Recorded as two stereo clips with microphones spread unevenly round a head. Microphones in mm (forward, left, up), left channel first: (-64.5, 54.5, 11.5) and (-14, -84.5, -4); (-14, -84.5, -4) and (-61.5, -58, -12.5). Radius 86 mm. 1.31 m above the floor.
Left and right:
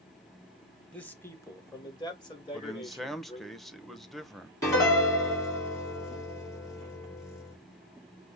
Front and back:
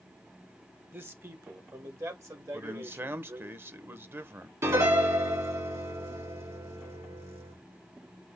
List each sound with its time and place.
0.9 s a man speaking: 165° right, 1.2 m; by 3.5 s 160° left, 2.5 m
2.5 s a man speaking: 160° right, 0.8 m
4.6 s a piano: straight behind, 3 m